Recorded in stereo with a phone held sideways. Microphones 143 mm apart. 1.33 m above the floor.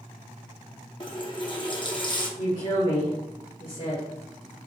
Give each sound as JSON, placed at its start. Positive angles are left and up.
{"t": 1.0, "sound": "a running tap", "side_deg": 30, "distance_m": 1.0}
{"t": 2.4, "sound": "a woman speaking", "side_deg": 70, "distance_m": 2.0}